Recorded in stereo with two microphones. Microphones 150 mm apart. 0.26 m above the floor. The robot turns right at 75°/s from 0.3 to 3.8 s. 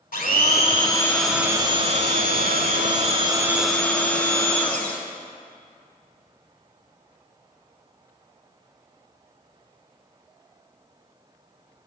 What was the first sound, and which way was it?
A blender, 105° left.